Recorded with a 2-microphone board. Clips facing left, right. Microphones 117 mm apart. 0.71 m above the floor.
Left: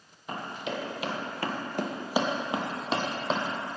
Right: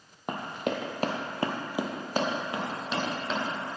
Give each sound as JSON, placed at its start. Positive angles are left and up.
{"t": 0.3, "sound": "running footsteps", "side_deg": -60, "distance_m": 1.4}